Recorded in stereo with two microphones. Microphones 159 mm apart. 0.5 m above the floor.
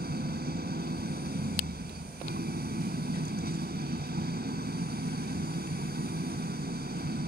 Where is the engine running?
75° right (ahead or behind).